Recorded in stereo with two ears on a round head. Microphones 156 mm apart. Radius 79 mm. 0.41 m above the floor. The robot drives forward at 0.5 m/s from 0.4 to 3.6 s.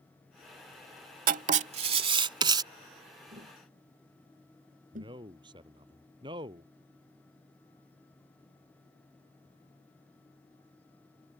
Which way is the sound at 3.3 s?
55° right (ahead or behind).